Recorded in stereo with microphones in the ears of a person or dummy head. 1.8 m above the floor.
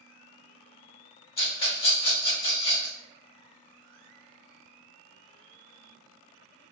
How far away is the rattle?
About 1.2 m.